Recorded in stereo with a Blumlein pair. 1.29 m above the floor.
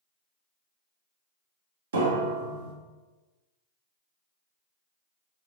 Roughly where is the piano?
Ahead right.